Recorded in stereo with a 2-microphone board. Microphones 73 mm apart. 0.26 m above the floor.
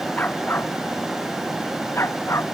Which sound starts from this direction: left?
A dog barking, at 0.2 s.